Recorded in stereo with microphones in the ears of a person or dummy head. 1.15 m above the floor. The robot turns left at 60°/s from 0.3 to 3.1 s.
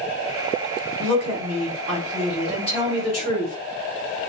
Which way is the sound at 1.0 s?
80° right.